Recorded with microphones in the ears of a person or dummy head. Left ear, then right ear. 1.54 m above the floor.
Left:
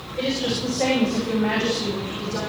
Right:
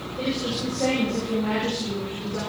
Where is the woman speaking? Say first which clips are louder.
Left 4 dB; 65° left (ahead or behind), 8 m; by 2.4 s 75° left (ahead or behind), 6.5 m.